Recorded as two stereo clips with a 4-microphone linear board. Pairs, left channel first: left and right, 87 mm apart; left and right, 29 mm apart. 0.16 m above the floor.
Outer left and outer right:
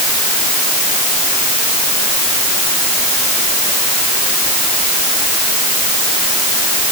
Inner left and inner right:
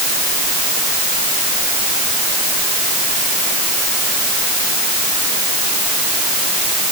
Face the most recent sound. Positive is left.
No sound to turn to.